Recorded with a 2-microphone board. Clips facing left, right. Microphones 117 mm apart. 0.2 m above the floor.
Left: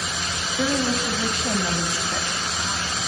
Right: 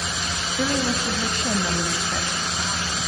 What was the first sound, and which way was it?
A woman speaking, centre (ahead or behind).